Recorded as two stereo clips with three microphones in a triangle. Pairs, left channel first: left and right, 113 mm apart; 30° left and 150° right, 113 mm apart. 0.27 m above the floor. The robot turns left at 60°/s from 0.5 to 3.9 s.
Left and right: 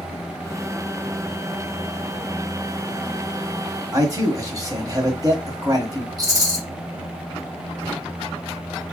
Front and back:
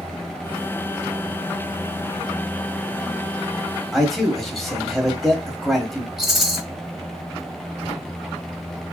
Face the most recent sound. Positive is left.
turn(degrees=15)